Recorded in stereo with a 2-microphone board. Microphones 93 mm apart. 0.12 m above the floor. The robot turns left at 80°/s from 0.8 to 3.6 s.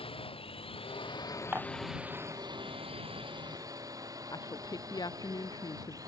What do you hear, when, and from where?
0.0 s a drone: 85° left; by 6.1 s 140° right
1.5 s dishes clattering: 20° right (ahead or behind); by 1.8 s 45° right (ahead or behind)
4.3 s a woman speaking: 45° left (ahead or behind)